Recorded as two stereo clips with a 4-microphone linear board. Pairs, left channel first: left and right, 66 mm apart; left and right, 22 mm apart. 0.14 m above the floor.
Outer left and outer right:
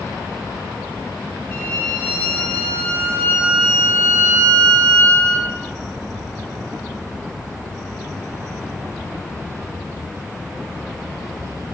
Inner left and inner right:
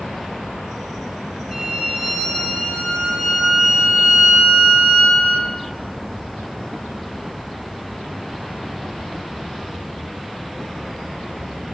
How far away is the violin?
About 3.5 m.